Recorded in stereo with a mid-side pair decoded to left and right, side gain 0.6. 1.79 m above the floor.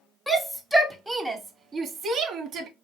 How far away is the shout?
About 1.7 m.